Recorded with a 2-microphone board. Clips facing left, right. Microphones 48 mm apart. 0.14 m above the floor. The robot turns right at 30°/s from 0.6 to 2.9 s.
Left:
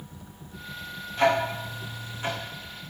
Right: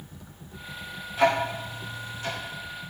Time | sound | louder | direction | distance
1.2 | ticking | even | 5° right (ahead or behind) | 3 m